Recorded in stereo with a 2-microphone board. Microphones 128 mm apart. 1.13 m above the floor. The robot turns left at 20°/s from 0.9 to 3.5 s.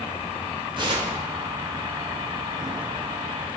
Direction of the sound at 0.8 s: 40° right (ahead or behind).